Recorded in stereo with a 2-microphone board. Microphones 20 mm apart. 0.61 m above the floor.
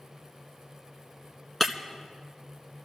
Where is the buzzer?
No buzzer in this recording.